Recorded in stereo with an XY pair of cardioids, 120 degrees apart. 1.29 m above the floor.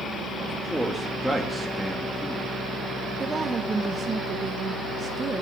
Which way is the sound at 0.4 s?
Straight ahead.